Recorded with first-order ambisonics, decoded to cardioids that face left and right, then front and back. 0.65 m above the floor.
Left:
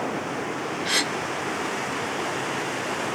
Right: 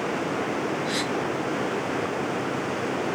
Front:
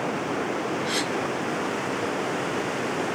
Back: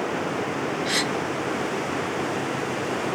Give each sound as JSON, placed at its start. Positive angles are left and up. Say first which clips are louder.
{"t": 0.8, "sound": "a gasp", "louder": "left 3 dB, back 4 dB", "azimuth_deg": 95, "distance_m": 1.0}